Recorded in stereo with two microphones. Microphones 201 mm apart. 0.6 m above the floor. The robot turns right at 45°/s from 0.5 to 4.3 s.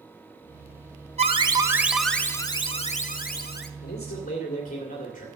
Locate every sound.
1.2 s an alarm: 40° right, 0.9 m; by 3.7 s 75° left, 0.9 m
3.8 s a man speaking: 60° left (ahead or behind), 2.5 m; by 5.2 s 45° left (ahead or behind), 2.5 m